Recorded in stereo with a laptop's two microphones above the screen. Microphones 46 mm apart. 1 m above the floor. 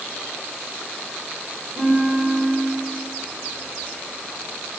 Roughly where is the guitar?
Centre.